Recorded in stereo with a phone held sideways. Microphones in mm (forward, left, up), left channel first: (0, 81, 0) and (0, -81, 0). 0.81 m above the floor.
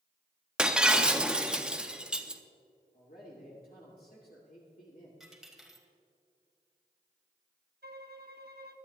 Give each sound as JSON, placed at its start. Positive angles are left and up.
{"t": 0.6, "sound": "breaking glass", "side_deg": -5, "distance_m": 0.6}
{"t": 2.9, "sound": "a man speaking", "side_deg": 65, "distance_m": 2.5}
{"t": 5.2, "sound": "a dropped coin", "side_deg": 0, "distance_m": 1.8}
{"t": 7.8, "sound": "a violin", "side_deg": -80, "distance_m": 0.9}